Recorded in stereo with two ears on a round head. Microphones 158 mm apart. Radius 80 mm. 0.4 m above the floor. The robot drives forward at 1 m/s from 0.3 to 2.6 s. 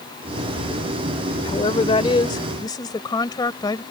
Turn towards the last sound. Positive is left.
turn(degrees=25)  # may be behind; listen again after turning